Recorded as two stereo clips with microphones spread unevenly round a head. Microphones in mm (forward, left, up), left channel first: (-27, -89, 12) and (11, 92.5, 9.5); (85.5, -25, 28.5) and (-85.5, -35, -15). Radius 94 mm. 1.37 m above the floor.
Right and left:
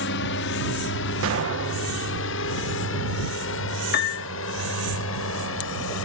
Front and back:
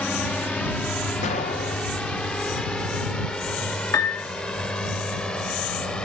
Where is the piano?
65° right.